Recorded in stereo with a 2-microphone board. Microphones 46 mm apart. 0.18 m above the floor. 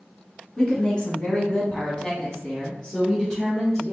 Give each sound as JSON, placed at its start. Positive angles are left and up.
{"t": 0.6, "sound": "a woman speaking", "side_deg": 20, "distance_m": 1.4}